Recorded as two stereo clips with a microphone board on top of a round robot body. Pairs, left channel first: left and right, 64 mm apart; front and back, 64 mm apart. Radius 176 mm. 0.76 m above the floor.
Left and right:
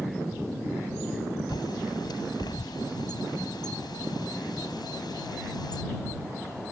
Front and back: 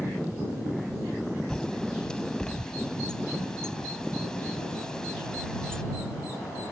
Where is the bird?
80° left.